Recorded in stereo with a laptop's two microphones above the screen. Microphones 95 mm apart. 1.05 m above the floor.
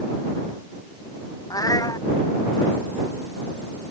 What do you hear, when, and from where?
1.5 s a cat meowing: 40° left (ahead or behind)